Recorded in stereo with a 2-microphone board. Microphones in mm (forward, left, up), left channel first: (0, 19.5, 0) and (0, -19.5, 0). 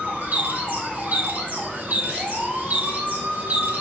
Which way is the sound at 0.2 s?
45° right (ahead or behind).